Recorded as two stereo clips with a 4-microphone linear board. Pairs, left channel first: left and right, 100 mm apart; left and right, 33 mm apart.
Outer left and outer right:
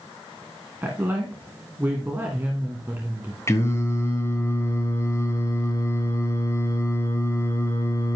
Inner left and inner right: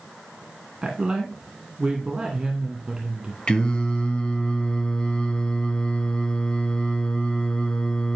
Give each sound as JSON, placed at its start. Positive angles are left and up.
{"t": 0.8, "sound": "a woman speaking", "side_deg": -20, "distance_m": 2.0}
{"t": 3.5, "sound": "singing", "side_deg": 30, "distance_m": 2.0}